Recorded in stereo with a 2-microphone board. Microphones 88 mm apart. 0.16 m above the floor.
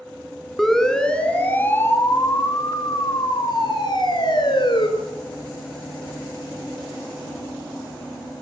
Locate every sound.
0.6 s a siren: centre (ahead or behind), 2.5 m; by 4.9 s 60° left (ahead or behind), 3.5 m